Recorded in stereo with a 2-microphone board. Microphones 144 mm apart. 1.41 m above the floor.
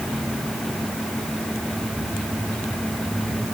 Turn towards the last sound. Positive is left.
No sound to turn to.